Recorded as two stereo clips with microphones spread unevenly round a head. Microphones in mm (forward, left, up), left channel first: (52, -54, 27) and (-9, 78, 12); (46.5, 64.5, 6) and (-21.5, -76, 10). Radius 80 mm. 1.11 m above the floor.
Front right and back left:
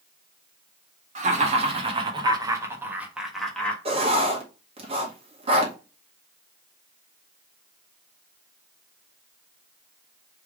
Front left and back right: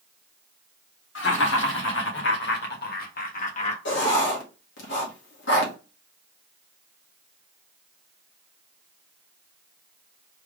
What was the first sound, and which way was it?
Laughter, 75° left.